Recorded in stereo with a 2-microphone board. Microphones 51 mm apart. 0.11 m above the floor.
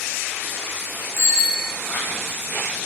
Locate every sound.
1.2 s a bicycle bell: 10° right (ahead or behind), 6 m